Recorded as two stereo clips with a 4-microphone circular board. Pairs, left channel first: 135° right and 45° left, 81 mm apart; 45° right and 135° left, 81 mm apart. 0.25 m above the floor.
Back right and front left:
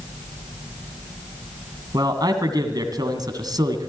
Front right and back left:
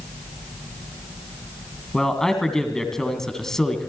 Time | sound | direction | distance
1.9 | a man speaking | 40° left | 2 m